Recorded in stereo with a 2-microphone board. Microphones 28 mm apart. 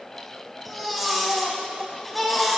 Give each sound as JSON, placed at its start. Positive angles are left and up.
{"t": 0.7, "sound": "a baby crying", "side_deg": 5, "distance_m": 3.0}